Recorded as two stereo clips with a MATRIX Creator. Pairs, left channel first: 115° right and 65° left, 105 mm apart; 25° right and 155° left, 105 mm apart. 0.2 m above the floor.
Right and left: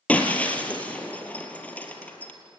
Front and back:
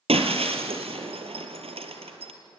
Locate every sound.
0.1 s breaking glass: 170° left, 2 m